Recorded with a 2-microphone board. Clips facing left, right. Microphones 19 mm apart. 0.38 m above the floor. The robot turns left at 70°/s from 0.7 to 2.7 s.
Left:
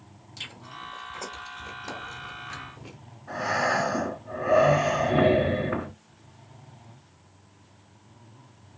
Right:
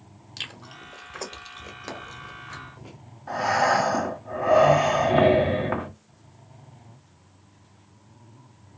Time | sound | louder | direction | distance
0.4 | chewing | right 2 dB | 40° right (ahead or behind) | 0.9 m
3.3 | breathing | right 4 dB | 50° right (ahead or behind) | 1.5 m